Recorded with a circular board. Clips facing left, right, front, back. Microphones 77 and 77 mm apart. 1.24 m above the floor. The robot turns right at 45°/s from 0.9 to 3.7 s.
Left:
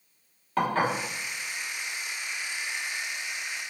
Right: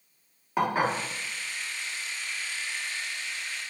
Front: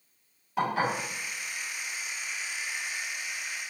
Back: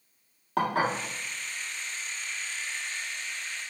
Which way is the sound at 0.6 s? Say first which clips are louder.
Even, back 1 dB; 170° right.